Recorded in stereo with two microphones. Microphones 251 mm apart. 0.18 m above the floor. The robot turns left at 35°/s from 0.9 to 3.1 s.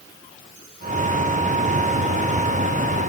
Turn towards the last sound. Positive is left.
No sound to turn to.